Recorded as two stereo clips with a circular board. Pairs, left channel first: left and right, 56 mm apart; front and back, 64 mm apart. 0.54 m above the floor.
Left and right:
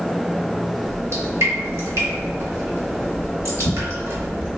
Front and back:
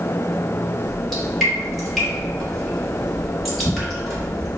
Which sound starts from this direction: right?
Dripping, at 0.8 s.